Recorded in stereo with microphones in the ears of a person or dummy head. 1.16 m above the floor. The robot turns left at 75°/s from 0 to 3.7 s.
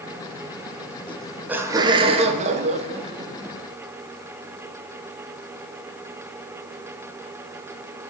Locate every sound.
1.1 s laughter: 15° left, 0.5 m; by 3.6 s 170° right, 0.5 m